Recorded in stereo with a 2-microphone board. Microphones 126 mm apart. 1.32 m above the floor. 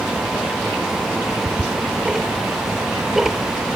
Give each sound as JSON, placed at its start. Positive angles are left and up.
{"t": 1.3, "sound": "ticking", "side_deg": -5}